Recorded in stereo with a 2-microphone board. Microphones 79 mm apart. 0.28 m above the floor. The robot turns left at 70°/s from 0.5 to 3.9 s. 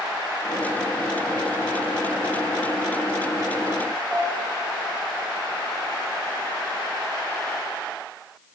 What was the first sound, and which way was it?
A piano, 10° left (ahead or behind).